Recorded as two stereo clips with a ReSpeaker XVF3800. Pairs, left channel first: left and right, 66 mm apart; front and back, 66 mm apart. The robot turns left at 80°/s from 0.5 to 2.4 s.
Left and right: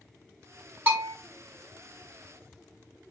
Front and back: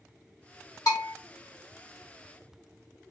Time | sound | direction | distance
0.9 | a bell | 30° right | 2 m